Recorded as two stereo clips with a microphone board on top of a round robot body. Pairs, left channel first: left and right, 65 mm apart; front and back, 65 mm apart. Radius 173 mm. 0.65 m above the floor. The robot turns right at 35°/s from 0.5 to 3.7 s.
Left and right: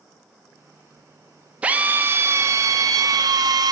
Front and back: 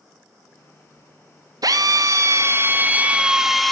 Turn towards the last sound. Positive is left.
turn(degrees=-90)